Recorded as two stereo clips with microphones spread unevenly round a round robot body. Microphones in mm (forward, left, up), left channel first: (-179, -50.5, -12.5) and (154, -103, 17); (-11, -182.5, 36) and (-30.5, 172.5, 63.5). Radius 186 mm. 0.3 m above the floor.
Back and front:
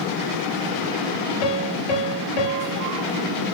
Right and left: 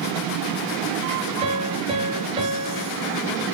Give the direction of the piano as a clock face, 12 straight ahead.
6 o'clock.